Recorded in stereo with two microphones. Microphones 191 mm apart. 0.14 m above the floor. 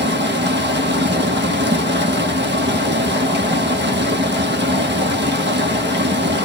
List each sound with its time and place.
0.0 s running water: 70° right (ahead or behind), 0.8 m